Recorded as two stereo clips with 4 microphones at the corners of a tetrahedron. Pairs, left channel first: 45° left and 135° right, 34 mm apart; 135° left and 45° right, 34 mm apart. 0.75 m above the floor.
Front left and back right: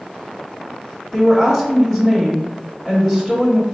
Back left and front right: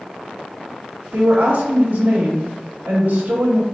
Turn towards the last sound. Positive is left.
turn(degrees=-40)